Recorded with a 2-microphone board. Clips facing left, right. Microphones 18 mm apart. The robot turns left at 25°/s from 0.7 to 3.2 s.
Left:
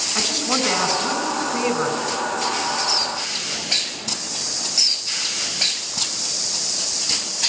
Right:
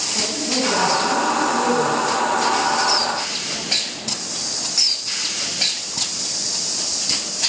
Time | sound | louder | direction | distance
0.1 | a man speaking | left 1 dB | 85° left | 5 m